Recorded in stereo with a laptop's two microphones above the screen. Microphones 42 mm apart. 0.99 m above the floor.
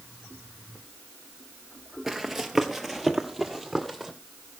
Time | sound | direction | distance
2.1 | running footsteps | 5° right (ahead or behind) | 1.0 m